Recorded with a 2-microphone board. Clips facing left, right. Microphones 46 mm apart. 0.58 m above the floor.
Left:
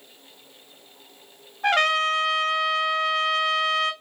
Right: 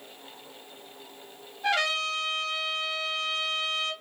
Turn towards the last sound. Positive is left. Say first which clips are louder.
# left 6 dB
turn(degrees=50)  # may be behind; listen again after turning